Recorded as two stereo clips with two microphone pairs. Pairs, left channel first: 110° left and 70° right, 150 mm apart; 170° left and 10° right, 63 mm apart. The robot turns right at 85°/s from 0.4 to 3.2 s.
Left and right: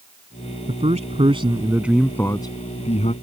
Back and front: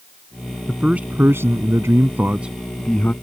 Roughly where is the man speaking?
Right.